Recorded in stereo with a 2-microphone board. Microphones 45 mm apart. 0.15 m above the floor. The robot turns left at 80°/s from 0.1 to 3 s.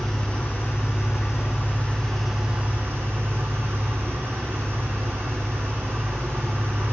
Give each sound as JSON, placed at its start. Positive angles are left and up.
{"t": 0.0, "sound": "an engine running", "azimuth_deg": 170, "distance_m": 1.6}